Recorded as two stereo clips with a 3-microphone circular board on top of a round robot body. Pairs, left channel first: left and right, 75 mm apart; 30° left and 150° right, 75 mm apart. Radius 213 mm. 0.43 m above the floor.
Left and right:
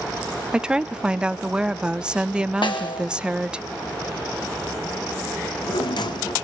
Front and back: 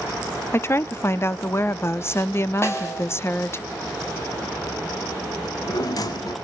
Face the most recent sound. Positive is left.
turn(degrees=65)